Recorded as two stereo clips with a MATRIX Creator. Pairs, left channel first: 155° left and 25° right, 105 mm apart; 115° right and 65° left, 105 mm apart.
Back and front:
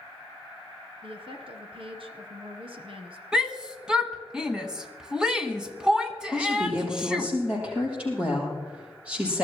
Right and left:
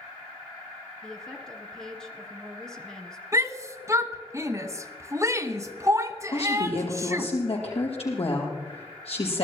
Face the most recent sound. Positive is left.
turn(degrees=-100)